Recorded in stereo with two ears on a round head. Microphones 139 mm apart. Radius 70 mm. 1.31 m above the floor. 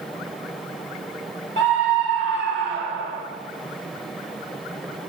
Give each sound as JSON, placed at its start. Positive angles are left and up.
{"t": 1.6, "sound": "a scream", "side_deg": -80, "distance_m": 2.5}